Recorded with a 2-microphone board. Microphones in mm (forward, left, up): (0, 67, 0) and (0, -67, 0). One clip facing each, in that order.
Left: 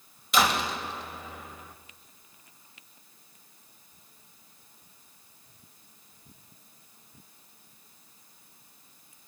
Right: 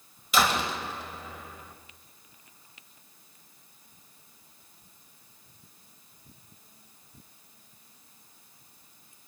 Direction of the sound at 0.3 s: Centre (ahead or behind).